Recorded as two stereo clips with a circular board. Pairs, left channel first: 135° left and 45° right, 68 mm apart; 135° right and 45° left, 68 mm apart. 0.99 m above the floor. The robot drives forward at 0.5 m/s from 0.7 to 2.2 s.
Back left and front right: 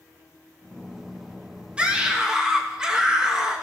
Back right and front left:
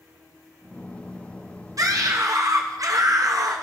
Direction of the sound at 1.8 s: 25° left.